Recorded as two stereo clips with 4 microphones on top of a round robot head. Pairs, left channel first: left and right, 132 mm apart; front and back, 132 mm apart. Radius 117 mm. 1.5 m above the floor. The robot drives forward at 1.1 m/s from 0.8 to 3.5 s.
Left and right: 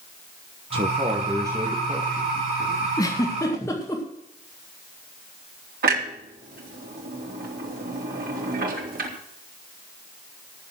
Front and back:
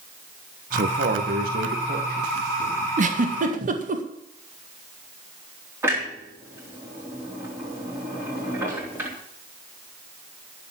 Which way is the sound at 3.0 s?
155° left.